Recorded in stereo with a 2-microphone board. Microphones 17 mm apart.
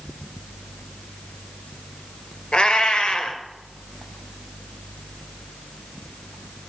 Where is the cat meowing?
85° left, 2 m.